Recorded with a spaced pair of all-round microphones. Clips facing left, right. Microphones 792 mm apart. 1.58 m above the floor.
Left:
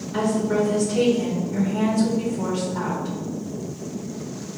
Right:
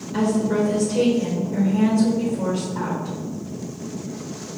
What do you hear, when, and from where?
0.1 s a woman speaking: 45° left (ahead or behind), 2.0 m